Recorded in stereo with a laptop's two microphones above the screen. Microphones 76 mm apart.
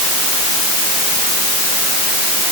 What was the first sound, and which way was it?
Only background noise.